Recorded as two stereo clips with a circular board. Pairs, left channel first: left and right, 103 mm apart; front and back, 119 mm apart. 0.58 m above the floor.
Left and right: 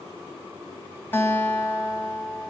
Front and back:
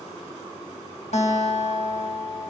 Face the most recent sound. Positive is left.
turn(degrees=20)